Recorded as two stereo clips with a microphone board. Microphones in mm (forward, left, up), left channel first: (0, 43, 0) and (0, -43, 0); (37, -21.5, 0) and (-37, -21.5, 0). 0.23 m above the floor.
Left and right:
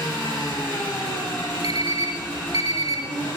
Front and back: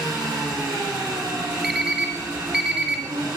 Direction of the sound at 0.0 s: 165° left.